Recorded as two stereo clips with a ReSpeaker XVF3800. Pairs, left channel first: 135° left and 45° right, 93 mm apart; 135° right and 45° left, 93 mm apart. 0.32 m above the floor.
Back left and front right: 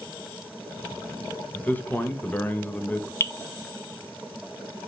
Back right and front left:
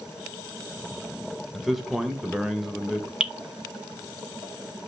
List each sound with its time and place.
1.5 s a man speaking: 130° left, 0.9 m
3.2 s dripping: 120° left, 0.5 m